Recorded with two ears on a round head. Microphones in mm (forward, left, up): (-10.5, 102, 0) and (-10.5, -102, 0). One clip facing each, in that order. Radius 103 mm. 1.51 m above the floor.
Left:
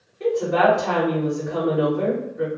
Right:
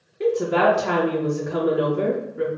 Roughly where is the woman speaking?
Right.